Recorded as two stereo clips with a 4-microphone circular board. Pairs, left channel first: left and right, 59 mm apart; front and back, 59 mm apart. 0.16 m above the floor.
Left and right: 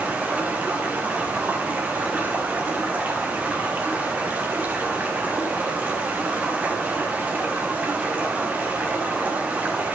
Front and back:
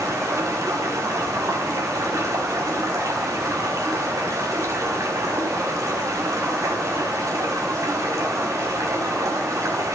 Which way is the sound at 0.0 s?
150° right.